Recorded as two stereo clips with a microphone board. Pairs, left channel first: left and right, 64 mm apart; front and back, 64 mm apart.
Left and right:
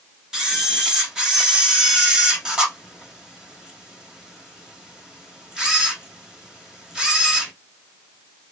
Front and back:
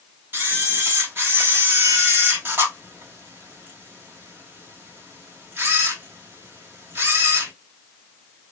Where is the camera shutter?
165° right, 1.4 m.